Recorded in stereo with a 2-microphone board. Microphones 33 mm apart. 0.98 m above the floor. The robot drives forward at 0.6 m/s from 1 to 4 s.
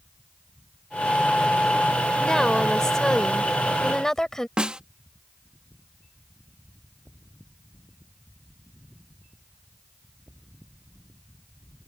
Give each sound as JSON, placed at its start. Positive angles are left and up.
{"t": 2.2, "sound": "a woman speaking", "side_deg": 20}
{"t": 4.6, "sound": "a snare drum", "side_deg": -30}